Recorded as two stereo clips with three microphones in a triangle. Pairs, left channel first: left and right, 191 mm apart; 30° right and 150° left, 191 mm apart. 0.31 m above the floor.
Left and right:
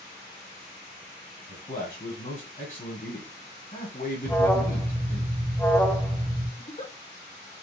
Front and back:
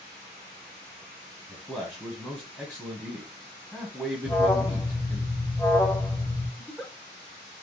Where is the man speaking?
60° left, 1.9 m.